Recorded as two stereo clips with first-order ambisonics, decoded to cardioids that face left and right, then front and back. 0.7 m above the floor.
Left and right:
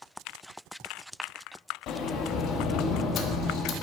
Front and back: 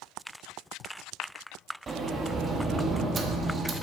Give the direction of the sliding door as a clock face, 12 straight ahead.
8 o'clock.